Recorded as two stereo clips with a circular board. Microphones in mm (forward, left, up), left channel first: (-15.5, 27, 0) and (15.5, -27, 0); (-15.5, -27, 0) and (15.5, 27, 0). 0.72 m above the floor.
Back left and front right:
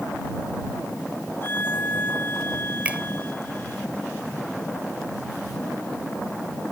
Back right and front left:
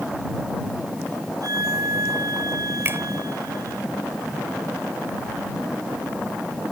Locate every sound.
1.4 s a violin: 65° left
2.9 s a finger snap: 10° left